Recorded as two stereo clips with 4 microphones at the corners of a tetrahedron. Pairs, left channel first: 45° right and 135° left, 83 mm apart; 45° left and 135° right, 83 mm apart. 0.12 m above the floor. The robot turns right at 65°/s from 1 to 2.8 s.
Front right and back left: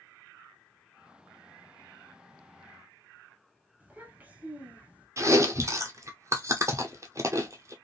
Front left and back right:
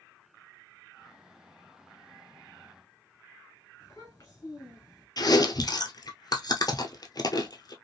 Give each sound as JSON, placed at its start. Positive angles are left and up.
{"t": 3.8, "sound": "a child speaking", "azimuth_deg": 75, "distance_m": 1.1}
{"t": 5.2, "sound": "chewing", "azimuth_deg": 85, "distance_m": 0.6}